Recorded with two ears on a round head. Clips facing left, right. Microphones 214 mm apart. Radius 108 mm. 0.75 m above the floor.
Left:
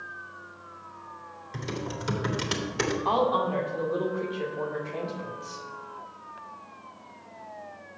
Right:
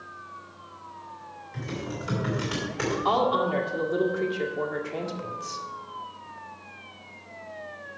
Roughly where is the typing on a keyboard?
Left.